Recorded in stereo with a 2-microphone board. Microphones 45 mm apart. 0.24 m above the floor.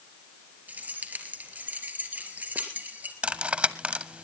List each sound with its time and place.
0.7 s keys jangling: 40° right (ahead or behind), 3 m
3.2 s cutlery clinking: 30° right (ahead or behind), 0.8 m